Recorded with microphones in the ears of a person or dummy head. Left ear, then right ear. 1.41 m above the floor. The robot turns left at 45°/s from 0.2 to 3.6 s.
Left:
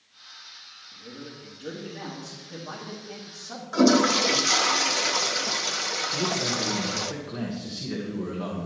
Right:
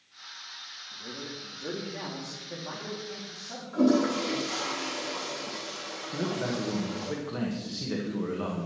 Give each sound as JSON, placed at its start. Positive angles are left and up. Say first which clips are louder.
{"t": 0.9, "sound": "a man speaking", "louder": "right 3 dB", "azimuth_deg": -85, "distance_m": 2.0}
{"t": 3.7, "sound": "a toilet flushing", "louder": "left 5 dB", "side_deg": 65, "distance_m": 0.8}
{"t": 6.1, "sound": "a man speaking", "louder": "left 5 dB", "side_deg": -25, "distance_m": 1.5}